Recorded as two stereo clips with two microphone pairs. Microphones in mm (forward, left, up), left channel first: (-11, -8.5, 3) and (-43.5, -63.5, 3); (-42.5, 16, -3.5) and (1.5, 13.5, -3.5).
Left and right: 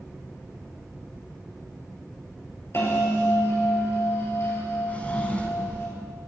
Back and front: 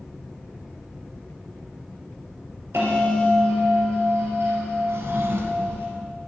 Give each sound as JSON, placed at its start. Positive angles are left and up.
{"t": 2.7, "sound": "a bell", "azimuth_deg": 15, "distance_m": 3.5}
{"t": 4.9, "sound": "a drawer", "azimuth_deg": -5, "distance_m": 1.4}